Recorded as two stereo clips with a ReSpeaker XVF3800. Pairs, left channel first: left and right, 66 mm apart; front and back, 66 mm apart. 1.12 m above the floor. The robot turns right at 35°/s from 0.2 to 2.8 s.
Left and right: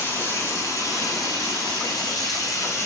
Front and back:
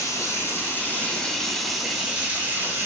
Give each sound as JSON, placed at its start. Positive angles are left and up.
{"t": 0.0, "sound": "running water", "azimuth_deg": 35, "distance_m": 5.0}